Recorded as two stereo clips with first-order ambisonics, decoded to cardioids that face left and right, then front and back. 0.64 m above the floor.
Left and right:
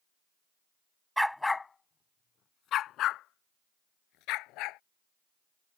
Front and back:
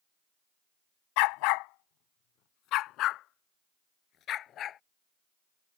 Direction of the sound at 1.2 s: Straight ahead.